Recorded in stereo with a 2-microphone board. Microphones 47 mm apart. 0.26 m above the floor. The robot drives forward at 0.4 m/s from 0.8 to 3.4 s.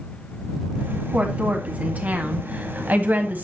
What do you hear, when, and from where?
1.1 s a woman speaking: 30° right (ahead or behind), 1.8 m; by 3.5 s 40° right (ahead or behind), 1.4 m